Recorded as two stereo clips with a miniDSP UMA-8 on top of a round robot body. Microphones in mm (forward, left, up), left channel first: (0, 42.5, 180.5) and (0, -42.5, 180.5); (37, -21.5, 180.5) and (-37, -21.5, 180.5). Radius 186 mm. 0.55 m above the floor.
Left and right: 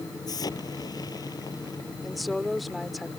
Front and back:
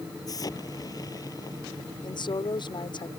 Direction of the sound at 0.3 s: 45° left.